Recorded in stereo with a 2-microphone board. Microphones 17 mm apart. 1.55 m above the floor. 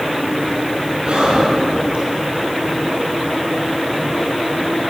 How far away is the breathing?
About 3 m.